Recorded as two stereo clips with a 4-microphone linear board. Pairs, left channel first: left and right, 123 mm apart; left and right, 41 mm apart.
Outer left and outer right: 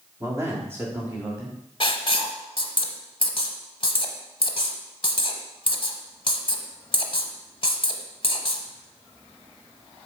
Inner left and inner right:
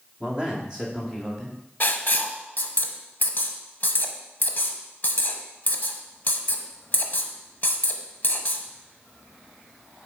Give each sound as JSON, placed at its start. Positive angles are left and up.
{"t": 0.2, "sound": "a man speaking", "side_deg": -25, "distance_m": 1.5}
{"t": 1.8, "sound": "writing", "side_deg": 45, "distance_m": 0.8}